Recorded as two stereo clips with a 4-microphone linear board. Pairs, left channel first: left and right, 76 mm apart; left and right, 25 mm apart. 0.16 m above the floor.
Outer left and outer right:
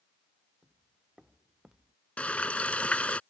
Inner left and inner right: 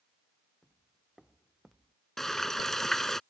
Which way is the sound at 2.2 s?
15° left (ahead or behind).